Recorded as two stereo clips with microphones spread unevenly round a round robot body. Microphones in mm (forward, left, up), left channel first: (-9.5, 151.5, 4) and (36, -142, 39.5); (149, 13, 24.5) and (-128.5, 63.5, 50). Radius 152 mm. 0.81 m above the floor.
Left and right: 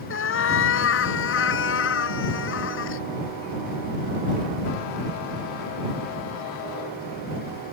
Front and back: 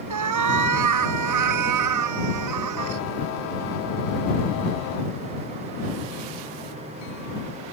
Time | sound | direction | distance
0.1 | a cat meowing | 150° left | ?